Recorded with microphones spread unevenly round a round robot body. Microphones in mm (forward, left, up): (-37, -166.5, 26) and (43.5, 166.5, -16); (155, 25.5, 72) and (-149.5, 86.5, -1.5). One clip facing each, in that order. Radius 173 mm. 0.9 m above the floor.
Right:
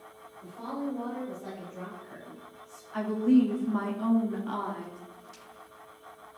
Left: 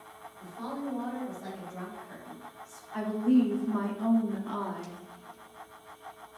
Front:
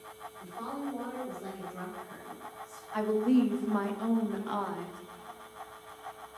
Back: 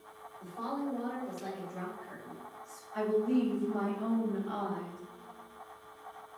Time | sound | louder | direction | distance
0.4 | a woman speaking | right 2 dB, back 1 dB | 70° left | 3.5 m
2.9 | a woman speaking | right 2 dB, front 3 dB | 15° right | 1.2 m